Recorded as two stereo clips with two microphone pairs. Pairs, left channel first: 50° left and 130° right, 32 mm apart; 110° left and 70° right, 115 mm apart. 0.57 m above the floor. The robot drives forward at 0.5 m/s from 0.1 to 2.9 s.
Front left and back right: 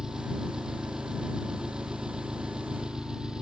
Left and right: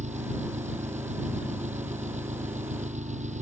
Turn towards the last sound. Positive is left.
turn(degrees=-65)